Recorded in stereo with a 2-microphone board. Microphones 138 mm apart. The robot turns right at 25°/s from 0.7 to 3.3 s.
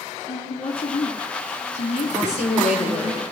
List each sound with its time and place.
0.3 s a woman speaking: 55° left, 2.0 m; by 3.1 s 115° left, 2.0 m
2.1 s a woman speaking: 65° right (ahead or behind), 4.5 m